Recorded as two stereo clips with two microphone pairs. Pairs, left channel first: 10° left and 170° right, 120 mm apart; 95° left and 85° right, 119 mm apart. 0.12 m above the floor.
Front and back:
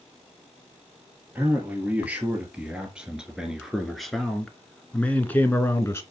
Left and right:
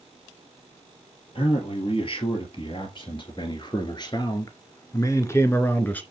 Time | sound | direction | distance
1.4 | a man speaking | 120° left | 3 m